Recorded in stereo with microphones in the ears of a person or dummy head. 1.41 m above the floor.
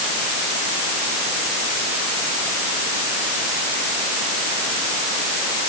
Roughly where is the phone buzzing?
No phone buzzing in this recording.